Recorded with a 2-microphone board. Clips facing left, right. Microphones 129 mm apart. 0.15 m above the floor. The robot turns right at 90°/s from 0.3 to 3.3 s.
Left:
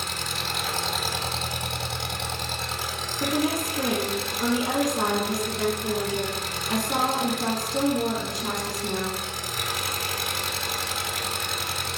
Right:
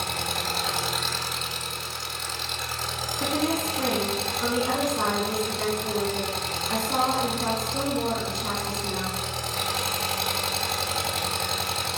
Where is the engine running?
60° right, 1.6 m; by 12.0 s 150° right, 1.6 m.